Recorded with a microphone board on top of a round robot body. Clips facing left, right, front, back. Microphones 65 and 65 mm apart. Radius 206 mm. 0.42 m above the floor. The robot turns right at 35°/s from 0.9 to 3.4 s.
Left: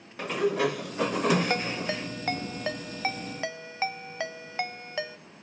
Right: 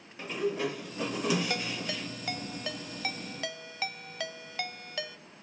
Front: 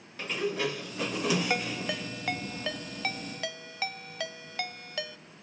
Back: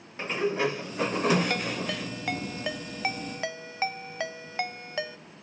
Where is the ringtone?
65° left, 0.9 m; by 5.2 s 135° left, 0.9 m.